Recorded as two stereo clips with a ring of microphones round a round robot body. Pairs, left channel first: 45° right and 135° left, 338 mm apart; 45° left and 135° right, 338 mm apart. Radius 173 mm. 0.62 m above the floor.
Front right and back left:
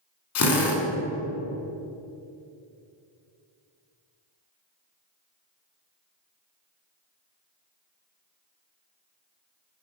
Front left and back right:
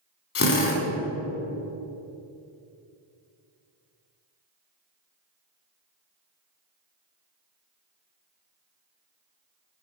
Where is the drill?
5° right, 1.9 m.